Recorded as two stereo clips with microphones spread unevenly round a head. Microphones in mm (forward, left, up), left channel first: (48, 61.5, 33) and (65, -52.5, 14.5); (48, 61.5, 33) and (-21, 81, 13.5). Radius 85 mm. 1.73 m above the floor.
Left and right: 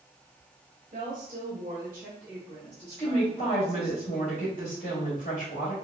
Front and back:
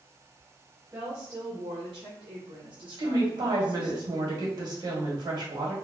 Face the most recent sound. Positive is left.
turn(degrees=145)